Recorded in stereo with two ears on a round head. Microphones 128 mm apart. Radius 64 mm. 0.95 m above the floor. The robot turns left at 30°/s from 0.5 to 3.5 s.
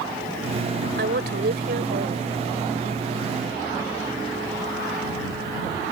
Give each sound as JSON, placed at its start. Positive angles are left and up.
{"t": 1.0, "sound": "a woman speaking", "azimuth_deg": -80}